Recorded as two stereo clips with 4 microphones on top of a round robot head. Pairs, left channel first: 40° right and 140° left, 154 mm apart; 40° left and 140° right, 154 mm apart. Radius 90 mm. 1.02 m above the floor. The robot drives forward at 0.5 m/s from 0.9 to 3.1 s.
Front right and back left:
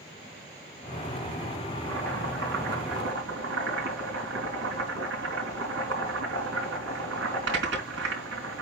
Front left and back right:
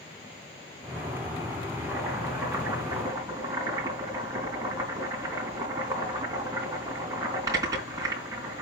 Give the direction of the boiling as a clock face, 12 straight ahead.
7 o'clock.